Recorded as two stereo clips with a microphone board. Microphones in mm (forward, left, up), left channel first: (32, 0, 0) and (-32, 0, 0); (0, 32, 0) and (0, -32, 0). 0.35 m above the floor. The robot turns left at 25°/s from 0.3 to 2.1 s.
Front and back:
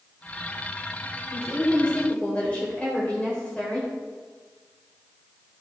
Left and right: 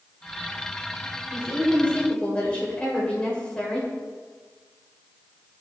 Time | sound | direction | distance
1.3 | a woman speaking | 60° left | 1.5 m